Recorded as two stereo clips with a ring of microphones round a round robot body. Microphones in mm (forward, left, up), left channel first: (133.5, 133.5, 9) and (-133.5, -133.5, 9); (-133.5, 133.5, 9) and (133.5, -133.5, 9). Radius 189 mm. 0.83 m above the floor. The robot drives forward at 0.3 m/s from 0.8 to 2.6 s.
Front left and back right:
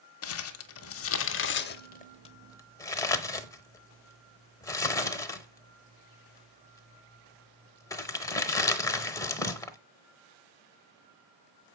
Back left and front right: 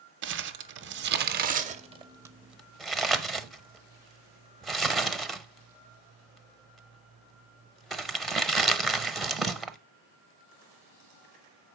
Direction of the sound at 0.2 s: 5° left.